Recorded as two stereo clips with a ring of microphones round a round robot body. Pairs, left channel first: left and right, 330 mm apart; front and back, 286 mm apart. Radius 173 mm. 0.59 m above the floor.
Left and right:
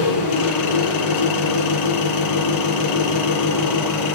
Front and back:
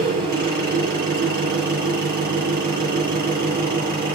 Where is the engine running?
120° left, 5 m.